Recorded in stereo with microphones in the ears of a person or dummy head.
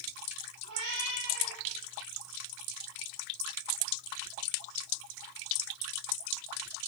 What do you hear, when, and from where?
0.6 s a cat meowing: 70° right (ahead or behind), 4 m